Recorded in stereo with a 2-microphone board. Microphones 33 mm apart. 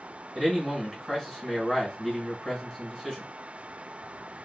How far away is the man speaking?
About 1.8 m.